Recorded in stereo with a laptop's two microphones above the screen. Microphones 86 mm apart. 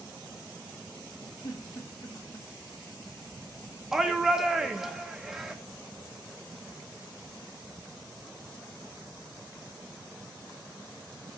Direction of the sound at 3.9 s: 5° right (ahead or behind).